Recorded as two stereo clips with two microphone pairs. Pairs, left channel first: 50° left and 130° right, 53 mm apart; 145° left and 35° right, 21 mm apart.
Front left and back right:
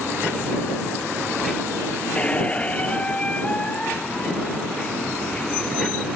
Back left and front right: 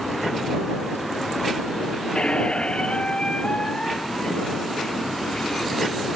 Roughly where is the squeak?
Behind left.